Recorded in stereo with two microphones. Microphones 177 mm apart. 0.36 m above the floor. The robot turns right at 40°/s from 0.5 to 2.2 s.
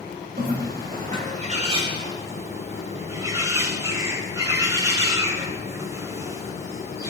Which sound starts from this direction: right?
A bird, at 0.4 s.